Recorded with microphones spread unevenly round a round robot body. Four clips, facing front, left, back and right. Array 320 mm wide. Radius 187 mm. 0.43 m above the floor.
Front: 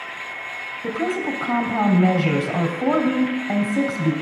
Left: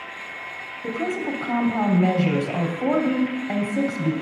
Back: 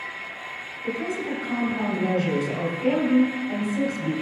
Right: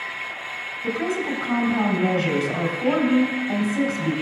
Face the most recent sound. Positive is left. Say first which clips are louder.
# right 1 dB, front 4 dB
turn(degrees=10)